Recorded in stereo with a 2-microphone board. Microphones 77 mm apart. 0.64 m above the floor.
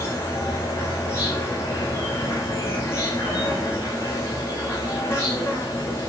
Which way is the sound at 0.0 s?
35° left (ahead or behind).